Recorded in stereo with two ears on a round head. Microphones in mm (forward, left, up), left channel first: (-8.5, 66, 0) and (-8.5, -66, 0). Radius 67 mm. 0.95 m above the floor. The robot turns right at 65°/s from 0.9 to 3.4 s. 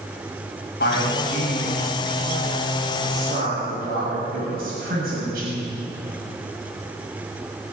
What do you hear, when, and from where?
0.8 s a man speaking: 85° left, 6 m; by 5.8 s 75° right (ahead or behind), 6 m